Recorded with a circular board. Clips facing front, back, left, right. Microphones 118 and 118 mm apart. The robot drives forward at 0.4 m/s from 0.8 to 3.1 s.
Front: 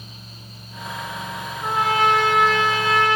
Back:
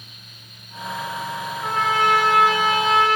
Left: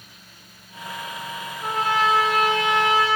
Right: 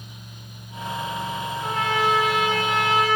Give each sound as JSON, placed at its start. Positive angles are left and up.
{"t": 1.6, "sound": "a trumpet", "azimuth_deg": 65, "distance_m": 0.8}